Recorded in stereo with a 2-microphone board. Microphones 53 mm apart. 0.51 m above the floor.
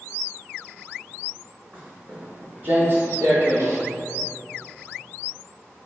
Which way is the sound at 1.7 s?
30° right (ahead or behind).